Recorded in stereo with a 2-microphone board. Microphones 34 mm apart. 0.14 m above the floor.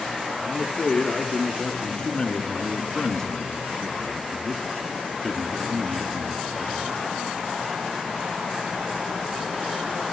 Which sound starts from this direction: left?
A man speaking, at 0.4 s.